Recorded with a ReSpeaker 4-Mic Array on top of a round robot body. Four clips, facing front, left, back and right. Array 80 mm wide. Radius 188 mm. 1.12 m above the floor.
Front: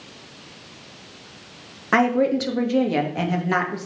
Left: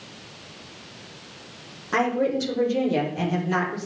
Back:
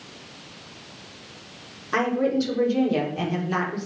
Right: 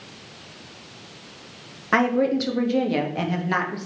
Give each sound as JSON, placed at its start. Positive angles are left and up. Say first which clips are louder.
{"t": 1.9, "sound": "a woman speaking", "louder": "right 3 dB, front 4 dB", "azimuth_deg": -30, "distance_m": 2.5}